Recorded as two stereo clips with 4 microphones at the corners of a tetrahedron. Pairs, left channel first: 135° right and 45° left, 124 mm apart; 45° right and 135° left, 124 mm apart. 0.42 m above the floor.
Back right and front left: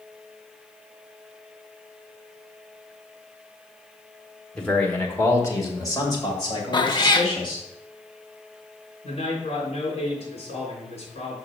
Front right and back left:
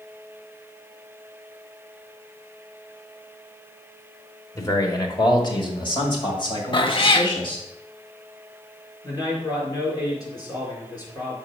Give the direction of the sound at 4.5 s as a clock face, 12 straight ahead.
2 o'clock.